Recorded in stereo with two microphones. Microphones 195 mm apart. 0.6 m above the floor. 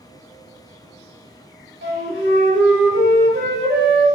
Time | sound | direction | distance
1.8 | a flute | 70° right (ahead or behind) | 1.2 m